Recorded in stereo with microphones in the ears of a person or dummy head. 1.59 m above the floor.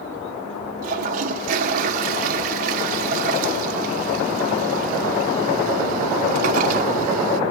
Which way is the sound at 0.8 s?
45° right (ahead or behind).